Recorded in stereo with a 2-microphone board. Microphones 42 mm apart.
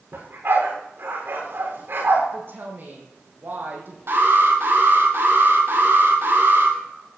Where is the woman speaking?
55° right (ahead or behind), 5.5 m.